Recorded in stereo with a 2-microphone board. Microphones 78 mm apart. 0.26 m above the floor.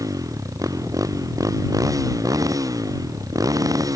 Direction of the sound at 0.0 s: 45° right (ahead or behind).